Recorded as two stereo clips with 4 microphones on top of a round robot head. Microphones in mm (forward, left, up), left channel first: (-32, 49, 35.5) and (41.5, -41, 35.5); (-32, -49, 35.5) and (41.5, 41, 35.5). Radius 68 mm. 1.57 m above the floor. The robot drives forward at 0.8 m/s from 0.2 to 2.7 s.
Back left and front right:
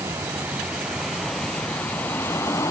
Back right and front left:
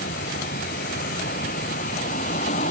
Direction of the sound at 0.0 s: 125° right.